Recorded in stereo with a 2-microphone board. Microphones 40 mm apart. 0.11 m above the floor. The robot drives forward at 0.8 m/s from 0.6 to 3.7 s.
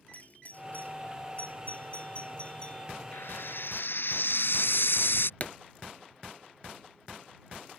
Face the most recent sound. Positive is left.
turn(degrees=45)  # may be behind; listen again after turning